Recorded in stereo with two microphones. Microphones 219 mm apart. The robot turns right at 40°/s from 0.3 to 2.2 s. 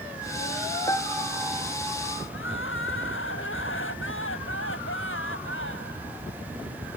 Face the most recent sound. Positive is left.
turn(degrees=65)  # may be behind; listen again after turning